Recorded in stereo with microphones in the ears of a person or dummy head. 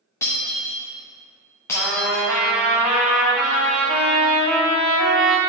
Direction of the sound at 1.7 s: Centre (ahead or behind).